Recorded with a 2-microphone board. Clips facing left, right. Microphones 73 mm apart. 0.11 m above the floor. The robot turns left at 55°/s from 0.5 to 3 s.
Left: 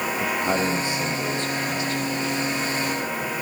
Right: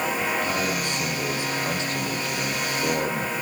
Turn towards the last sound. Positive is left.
turn(degrees=-100)